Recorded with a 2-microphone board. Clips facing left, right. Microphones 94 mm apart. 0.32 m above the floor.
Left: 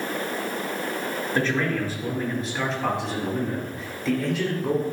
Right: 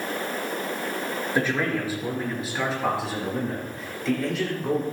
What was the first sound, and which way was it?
A man speaking, 10° right (ahead or behind).